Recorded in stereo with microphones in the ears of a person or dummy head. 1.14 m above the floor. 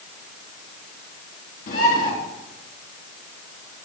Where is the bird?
55° left (ahead or behind), 3.5 m.